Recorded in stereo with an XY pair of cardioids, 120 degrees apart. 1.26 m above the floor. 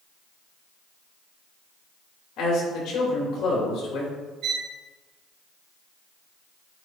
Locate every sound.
2.4 s a man speaking: 65° left, 2.5 m
4.4 s a violin: 65° right, 1.0 m